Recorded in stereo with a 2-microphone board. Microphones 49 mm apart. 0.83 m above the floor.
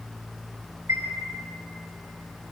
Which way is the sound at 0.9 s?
90° right.